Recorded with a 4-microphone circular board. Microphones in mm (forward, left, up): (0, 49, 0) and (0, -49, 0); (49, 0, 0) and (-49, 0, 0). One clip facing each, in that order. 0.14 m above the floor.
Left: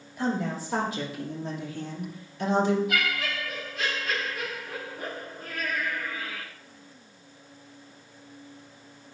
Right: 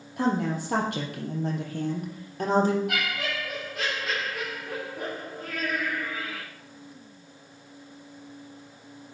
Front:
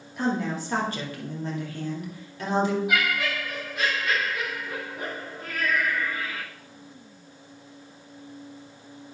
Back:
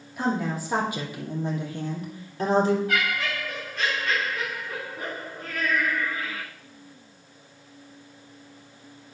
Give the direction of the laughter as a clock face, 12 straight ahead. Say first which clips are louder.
Left 1 dB, front 1 dB; 3 o'clock.